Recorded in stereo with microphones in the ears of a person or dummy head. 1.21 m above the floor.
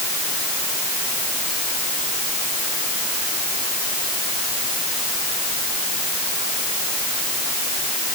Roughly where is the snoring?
I don't hear snoring.